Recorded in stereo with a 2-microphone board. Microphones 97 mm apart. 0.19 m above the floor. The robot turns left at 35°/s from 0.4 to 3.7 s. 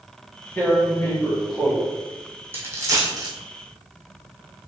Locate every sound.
0.6 s tearing paper: 20° left (ahead or behind), 1.1 m; by 1.8 s 5° left (ahead or behind), 1.1 m
2.5 s a dropped coin: 20° right (ahead or behind), 1.2 m; by 3.3 s 50° right (ahead or behind), 1.2 m